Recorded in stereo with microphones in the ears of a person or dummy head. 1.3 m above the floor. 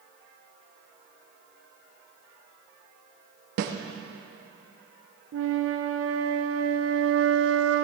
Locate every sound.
3.6 s a snare drum: 55° right (ahead or behind), 1.1 m
5.3 s a flute: 65° right (ahead or behind), 0.8 m